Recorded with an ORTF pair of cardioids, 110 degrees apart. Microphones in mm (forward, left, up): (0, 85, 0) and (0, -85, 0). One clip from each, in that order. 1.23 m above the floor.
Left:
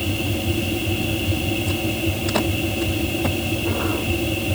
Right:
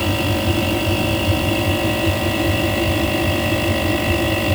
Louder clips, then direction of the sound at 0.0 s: Right 5 dB; 15° right.